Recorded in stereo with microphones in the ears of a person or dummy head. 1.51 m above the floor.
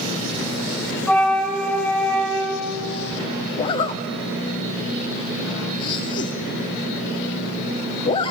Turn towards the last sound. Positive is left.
turn(degrees=30)  # may be behind; listen again after turning